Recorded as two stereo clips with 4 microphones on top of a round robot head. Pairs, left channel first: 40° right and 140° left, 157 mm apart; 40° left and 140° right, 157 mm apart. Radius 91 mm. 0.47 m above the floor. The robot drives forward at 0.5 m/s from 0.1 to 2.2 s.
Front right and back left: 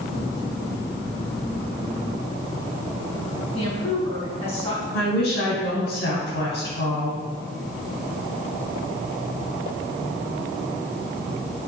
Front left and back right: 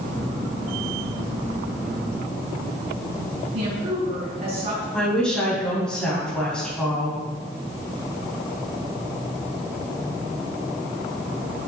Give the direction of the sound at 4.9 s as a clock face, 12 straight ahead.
2 o'clock.